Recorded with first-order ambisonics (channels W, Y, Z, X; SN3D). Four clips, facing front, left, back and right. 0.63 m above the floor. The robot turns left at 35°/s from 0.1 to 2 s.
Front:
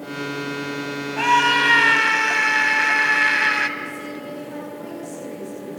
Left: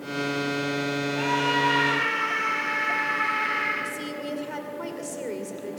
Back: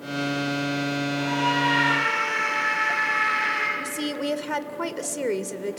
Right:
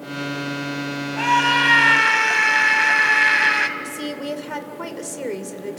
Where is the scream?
25° right, 4 m; by 3.7 s 55° right, 4 m.